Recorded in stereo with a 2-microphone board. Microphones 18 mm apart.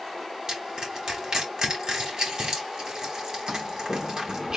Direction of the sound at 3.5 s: 40° right (ahead or behind).